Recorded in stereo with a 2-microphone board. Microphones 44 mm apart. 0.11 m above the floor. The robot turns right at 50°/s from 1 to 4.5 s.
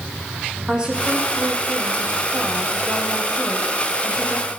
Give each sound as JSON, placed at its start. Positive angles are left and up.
{"t": 0.7, "sound": "a woman speaking", "azimuth_deg": -155, "distance_m": 3.5}